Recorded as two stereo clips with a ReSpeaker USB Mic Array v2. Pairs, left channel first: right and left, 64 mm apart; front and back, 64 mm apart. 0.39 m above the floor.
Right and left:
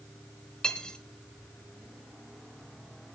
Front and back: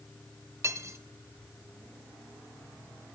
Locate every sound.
0.6 s cutlery clinking: 165° right, 0.7 m